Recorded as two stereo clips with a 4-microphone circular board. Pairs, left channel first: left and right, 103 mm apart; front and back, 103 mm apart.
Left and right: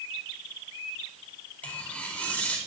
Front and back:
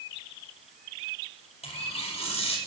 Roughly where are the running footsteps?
No running footsteps in this recording.